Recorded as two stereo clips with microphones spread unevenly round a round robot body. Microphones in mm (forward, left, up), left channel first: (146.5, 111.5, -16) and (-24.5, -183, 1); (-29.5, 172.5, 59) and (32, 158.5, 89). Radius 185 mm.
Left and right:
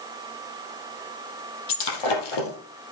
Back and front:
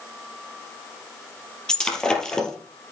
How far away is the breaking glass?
About 3.5 m.